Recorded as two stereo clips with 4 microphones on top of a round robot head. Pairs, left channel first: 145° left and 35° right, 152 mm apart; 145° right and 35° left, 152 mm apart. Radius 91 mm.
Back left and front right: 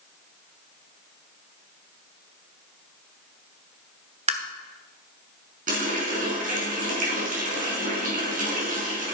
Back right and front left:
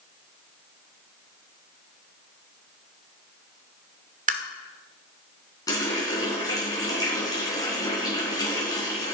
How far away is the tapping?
About 1.3 m.